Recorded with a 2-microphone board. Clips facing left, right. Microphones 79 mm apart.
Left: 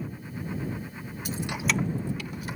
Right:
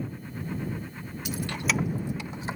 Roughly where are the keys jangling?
Left.